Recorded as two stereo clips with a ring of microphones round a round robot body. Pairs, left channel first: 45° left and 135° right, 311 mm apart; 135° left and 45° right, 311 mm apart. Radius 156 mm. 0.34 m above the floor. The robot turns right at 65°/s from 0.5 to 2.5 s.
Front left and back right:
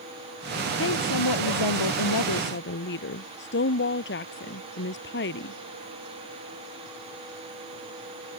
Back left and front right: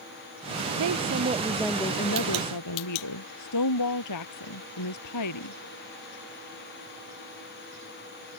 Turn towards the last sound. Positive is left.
turn(degrees=100)